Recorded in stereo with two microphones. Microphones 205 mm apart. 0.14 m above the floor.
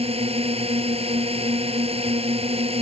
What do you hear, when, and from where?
0.0 s a drone: 30° right (ahead or behind)